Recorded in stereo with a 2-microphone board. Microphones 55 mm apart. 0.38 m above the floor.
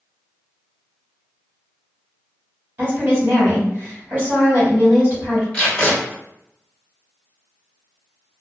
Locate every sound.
2.8 s a woman speaking: 40° right (ahead or behind), 1.6 m
5.5 s tape being pulled: 20° left (ahead or behind), 1.3 m